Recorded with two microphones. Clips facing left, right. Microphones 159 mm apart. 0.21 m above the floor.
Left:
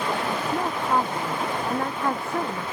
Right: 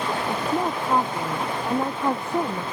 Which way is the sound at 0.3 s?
15° right (ahead or behind).